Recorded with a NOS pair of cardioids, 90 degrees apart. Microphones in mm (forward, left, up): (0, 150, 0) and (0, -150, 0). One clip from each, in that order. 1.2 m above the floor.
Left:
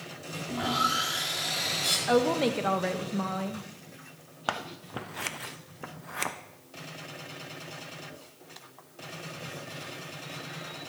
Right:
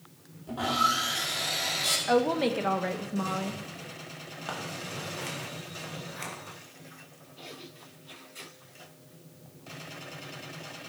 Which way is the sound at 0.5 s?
5° right.